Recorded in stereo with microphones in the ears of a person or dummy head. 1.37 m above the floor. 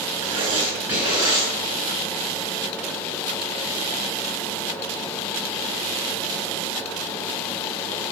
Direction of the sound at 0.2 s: 30° right (ahead or behind).